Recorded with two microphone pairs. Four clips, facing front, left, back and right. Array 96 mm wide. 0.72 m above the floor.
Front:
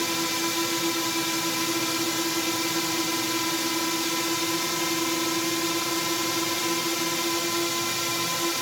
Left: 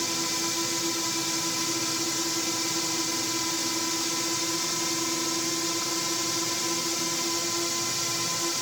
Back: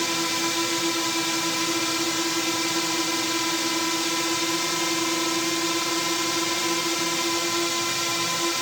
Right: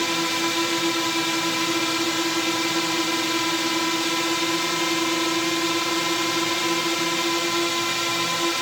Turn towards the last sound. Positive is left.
turn(degrees=-105)